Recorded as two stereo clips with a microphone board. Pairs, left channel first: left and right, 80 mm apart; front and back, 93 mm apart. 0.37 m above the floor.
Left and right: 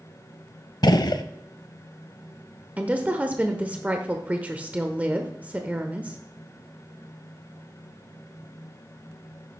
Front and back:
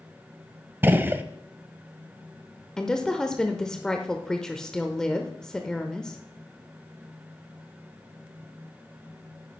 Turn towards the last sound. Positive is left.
turn(degrees=-70)